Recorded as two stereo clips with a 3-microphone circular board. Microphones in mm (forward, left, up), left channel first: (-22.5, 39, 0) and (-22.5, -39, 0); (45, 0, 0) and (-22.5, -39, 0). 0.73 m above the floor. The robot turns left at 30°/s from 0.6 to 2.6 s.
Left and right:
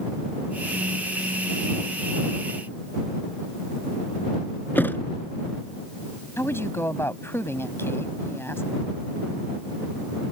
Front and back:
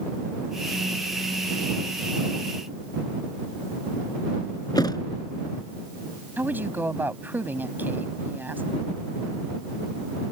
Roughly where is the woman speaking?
Behind left.